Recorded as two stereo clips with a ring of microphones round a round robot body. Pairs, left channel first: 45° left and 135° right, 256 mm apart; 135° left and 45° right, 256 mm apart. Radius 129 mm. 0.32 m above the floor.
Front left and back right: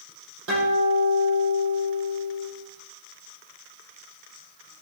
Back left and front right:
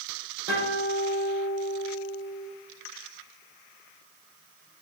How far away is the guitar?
About 8.5 m.